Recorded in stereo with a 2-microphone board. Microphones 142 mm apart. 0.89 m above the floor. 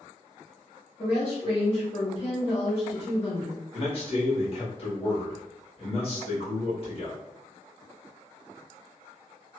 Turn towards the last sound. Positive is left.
turn(degrees=45)  # may be behind; listen again after turning